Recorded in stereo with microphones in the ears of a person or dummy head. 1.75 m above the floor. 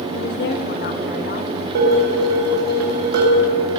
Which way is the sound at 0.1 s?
60° left (ahead or behind).